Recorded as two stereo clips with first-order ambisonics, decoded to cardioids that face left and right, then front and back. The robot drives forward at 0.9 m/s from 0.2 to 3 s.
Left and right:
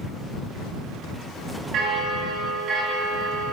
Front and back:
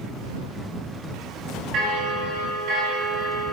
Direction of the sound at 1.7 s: 135° right.